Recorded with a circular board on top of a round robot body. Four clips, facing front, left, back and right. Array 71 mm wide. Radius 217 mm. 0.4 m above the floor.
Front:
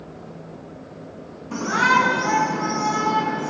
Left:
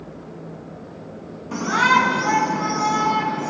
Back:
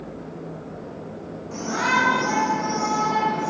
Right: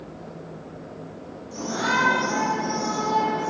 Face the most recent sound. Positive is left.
turn(degrees=85)